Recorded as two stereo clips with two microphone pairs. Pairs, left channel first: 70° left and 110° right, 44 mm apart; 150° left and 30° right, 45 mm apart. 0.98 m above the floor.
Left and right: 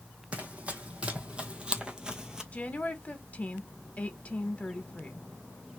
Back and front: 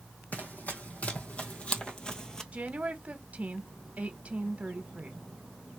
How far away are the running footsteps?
About 1.9 m.